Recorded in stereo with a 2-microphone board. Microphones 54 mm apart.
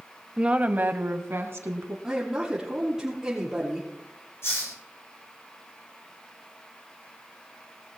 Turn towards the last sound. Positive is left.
turn(degrees=60)  # may be behind; listen again after turning